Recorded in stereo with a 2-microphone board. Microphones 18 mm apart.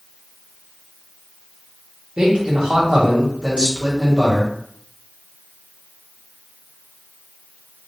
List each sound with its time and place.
2.2 s a man speaking: 60° right (ahead or behind), 1.3 m